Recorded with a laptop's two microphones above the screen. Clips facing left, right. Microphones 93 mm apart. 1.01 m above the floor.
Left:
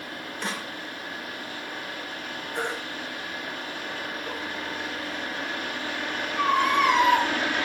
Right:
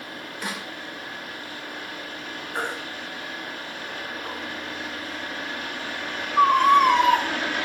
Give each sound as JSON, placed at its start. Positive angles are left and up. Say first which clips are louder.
{"t": 0.4, "sound": "a snare drum", "louder": "even", "side_deg": -10, "distance_m": 3.0}
{"t": 2.5, "sound": "a baby crying", "louder": "right 1 dB", "side_deg": -55, "distance_m": 4.5}